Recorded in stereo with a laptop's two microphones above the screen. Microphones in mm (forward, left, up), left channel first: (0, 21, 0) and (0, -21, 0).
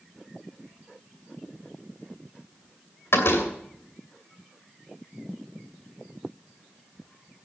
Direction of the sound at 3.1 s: 75° left (ahead or behind).